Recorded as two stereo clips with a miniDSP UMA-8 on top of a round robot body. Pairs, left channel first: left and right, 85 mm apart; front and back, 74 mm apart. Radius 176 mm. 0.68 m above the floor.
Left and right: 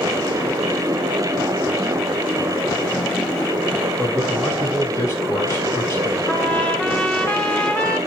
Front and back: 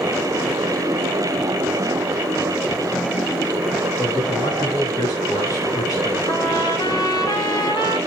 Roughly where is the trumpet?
Ahead.